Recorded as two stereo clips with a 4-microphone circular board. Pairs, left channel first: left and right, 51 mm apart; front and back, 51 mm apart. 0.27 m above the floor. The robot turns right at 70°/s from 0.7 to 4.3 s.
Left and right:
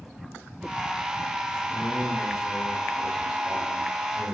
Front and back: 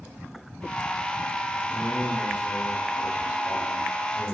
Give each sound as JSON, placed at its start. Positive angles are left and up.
{"t": 1.7, "sound": "a man speaking", "azimuth_deg": 95, "distance_m": 1.6}